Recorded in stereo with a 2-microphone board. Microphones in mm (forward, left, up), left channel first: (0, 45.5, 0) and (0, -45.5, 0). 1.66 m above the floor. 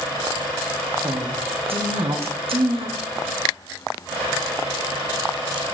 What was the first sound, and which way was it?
A woman speaking, 80° right.